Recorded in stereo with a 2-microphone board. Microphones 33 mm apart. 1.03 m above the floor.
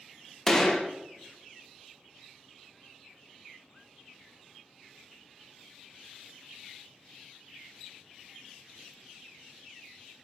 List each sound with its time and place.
0.5 s a gunshot: 10° left (ahead or behind), 0.6 m